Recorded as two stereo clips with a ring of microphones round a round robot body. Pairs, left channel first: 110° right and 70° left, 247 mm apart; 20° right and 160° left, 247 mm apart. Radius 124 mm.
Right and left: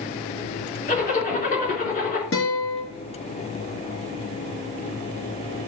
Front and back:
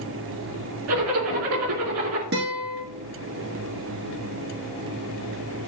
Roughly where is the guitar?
Behind right.